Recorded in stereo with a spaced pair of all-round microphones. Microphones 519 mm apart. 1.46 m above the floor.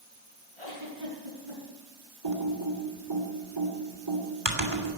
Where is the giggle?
70° right (ahead or behind), 5 m.